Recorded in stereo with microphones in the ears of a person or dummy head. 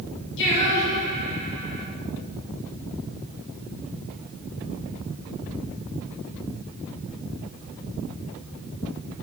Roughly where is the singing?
Left.